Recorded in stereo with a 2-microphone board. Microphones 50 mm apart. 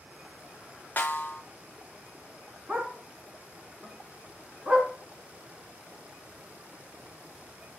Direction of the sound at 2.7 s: 20° right (ahead or behind).